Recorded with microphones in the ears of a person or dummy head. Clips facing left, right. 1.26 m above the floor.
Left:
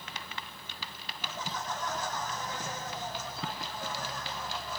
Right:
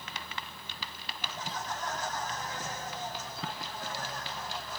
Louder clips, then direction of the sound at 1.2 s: Left 1 dB; 80° left.